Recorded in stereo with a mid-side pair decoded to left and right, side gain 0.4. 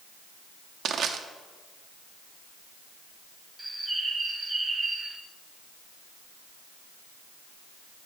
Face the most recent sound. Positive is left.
turn(degrees=-10)